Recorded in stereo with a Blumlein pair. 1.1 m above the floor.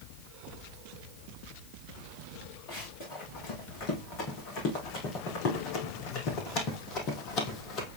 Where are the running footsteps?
40° left, 4.5 m; by 7.9 s 35° left, 1.8 m.